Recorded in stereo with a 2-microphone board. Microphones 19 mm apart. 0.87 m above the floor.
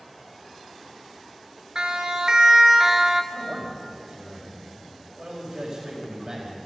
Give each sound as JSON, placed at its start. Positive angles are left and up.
{"t": 1.8, "sound": "a siren", "side_deg": -55, "distance_m": 2.5}
{"t": 3.3, "sound": "a man speaking", "side_deg": -40, "distance_m": 4.5}